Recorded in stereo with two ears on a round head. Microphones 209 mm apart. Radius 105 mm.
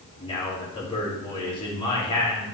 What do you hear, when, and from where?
0.2 s a man speaking: 20° left (ahead or behind), 3.5 m